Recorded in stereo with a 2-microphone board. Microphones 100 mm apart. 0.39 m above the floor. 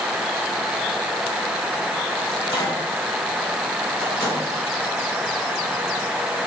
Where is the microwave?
35° left (ahead or behind), 3 m.